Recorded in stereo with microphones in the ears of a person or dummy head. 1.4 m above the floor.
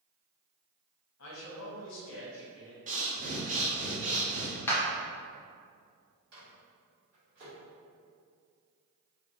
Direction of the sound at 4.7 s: 20° left (ahead or behind).